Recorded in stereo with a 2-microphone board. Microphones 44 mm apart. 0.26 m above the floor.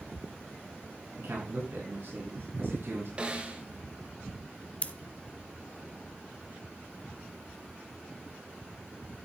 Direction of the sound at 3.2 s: 30° right (ahead or behind).